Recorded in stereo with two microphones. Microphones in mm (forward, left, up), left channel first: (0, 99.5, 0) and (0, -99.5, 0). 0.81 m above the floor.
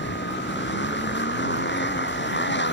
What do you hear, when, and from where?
0.0 s a motorcycle: 65° left (ahead or behind)